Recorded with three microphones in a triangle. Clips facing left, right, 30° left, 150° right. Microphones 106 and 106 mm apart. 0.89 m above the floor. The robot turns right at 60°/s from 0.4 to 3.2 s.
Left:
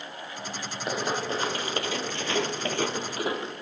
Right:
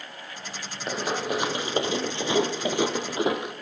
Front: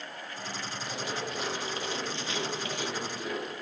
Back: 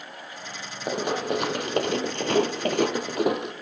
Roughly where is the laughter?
I don't hear laughter.